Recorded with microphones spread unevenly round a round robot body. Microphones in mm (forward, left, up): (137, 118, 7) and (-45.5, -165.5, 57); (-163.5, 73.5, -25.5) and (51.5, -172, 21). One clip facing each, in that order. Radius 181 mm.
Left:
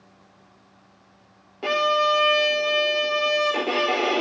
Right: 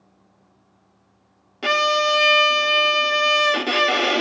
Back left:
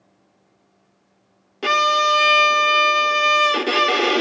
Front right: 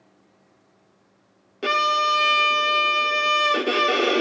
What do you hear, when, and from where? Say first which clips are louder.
1.6 s a violin: right 1 dB, back left 4 dB; 165° right, 0.8 m